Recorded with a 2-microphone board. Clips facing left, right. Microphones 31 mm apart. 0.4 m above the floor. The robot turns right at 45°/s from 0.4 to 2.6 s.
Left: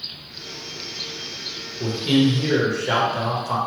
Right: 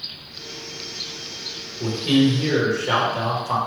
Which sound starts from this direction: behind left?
A man speaking, at 1.8 s.